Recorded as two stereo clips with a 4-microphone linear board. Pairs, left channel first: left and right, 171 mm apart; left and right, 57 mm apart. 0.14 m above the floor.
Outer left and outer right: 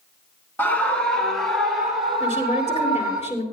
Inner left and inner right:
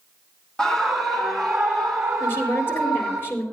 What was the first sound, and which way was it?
A scream, 10° left (ahead or behind).